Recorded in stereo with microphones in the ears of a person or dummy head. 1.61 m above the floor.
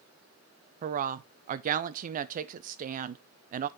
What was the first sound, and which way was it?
A woman speaking, 45° right (ahead or behind).